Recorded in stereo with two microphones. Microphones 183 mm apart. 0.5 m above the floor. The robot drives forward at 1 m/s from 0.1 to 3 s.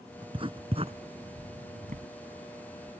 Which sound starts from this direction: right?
Writing, at 0.2 s.